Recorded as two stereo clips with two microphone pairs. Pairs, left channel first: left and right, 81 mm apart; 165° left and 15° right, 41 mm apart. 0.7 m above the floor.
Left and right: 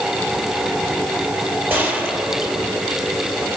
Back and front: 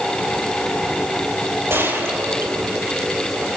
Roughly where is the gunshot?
Ahead.